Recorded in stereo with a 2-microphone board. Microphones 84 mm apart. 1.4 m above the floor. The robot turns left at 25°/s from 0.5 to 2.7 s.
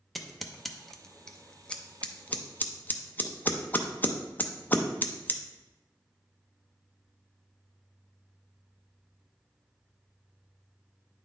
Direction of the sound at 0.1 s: Centre (ahead or behind).